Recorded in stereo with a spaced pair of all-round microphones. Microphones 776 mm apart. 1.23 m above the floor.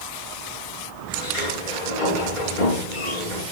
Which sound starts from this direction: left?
A sliding door, at 1.1 s.